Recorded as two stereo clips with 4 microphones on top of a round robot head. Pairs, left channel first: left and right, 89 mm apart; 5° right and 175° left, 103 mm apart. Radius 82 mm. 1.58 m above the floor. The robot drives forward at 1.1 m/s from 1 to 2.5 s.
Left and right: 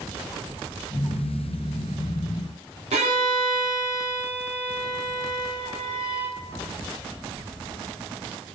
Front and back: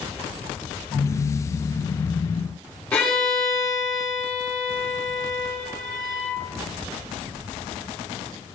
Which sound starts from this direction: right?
A violin, at 2.9 s.